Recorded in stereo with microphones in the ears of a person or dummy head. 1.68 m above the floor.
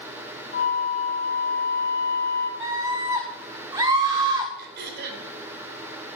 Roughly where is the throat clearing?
Right.